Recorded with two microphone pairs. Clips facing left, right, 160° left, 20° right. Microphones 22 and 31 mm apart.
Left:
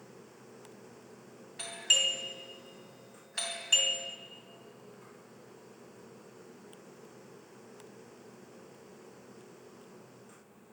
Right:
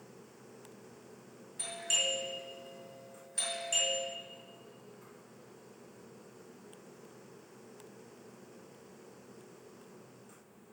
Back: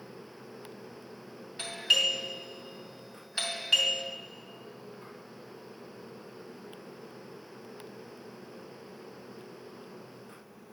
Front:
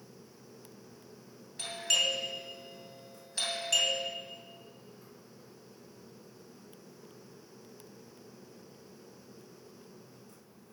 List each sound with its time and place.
1.6 s a doorbell: 120° left, 2.5 m